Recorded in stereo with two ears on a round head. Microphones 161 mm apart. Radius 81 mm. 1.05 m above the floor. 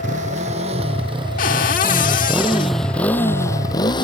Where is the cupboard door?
50° left (ahead or behind).